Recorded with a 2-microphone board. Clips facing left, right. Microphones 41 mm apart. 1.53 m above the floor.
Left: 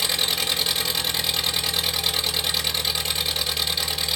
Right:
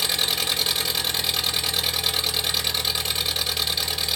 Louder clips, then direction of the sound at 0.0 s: Even; 5° left (ahead or behind).